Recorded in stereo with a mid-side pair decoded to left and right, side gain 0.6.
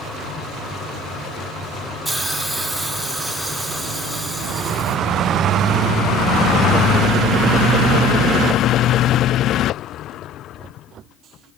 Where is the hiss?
15° right, 2.5 m.